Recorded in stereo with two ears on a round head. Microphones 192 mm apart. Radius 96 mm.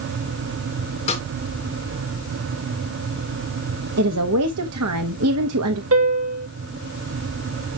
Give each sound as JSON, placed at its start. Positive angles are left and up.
{"t": 1.1, "sound": "a snare drum", "side_deg": 30, "distance_m": 3.5}
{"t": 4.0, "sound": "a woman speaking", "side_deg": -80, "distance_m": 0.9}
{"t": 5.9, "sound": "a piano", "side_deg": -70, "distance_m": 2.5}